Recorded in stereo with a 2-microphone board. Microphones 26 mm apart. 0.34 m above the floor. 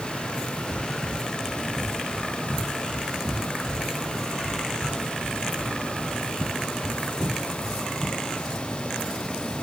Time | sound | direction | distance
0.7 | running footsteps | 20° left (ahead or behind) | 3 m